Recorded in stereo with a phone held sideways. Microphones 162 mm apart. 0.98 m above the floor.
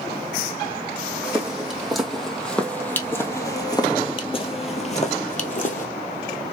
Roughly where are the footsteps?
Centre.